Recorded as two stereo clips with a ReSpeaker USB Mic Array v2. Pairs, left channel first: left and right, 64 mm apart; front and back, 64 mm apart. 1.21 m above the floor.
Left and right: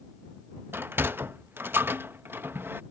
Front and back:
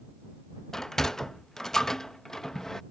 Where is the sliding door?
75° right.